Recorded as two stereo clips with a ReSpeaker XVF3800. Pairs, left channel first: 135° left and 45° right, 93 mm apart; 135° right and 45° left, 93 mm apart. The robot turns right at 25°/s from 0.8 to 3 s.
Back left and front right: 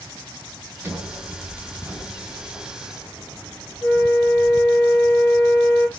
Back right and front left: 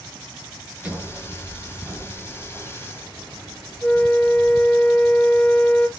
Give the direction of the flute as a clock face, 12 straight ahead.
7 o'clock.